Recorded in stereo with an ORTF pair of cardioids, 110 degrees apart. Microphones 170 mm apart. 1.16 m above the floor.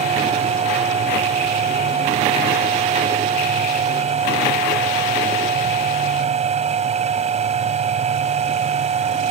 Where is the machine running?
40° right.